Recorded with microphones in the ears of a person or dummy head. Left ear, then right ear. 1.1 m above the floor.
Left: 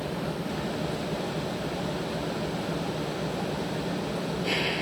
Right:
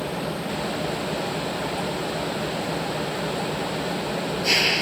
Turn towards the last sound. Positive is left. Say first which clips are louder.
# right 4 dB
turn(degrees=-45)  # may be behind; listen again after turning